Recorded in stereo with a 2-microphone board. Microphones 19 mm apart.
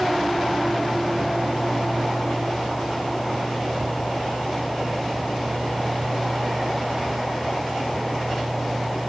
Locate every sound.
Only background noise.